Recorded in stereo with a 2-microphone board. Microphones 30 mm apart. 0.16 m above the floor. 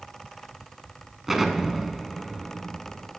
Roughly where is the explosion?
Centre.